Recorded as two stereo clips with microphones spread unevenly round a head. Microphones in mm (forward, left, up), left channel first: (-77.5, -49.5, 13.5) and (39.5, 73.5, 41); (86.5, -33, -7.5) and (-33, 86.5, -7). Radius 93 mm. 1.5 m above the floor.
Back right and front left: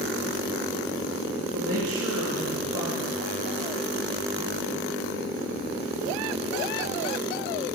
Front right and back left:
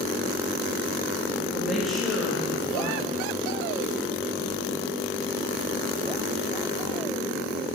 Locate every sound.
1.5 s a woman speaking: 45° left, 3 m